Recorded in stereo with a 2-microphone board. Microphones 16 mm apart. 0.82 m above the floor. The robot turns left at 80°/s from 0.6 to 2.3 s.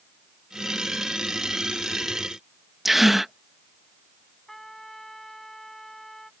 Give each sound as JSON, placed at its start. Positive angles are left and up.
{"t": 2.9, "sound": "a gasp", "side_deg": -20}
{"t": 4.5, "sound": "a trumpet", "side_deg": 25}